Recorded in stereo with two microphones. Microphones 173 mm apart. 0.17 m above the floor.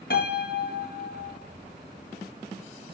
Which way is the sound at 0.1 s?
65° left (ahead or behind).